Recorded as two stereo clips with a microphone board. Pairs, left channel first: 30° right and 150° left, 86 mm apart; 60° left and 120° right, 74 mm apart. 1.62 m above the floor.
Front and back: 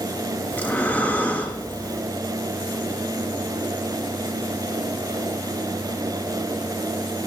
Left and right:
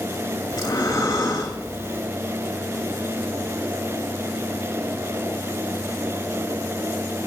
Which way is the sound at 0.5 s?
35° left.